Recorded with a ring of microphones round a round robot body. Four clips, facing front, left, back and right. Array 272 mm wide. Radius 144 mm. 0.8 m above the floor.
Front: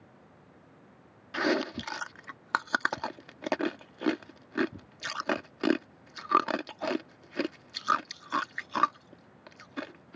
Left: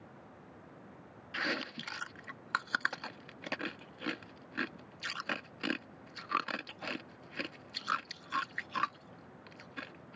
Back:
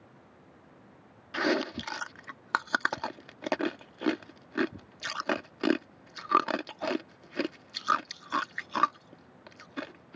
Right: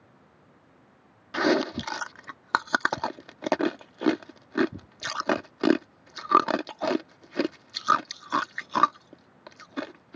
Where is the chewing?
90° right.